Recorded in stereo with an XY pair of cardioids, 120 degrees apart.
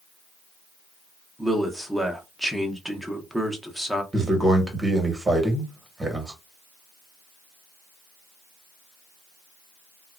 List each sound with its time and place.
1.4 s a man speaking: straight ahead, 0.9 m
4.1 s a man speaking: 15° right, 1.2 m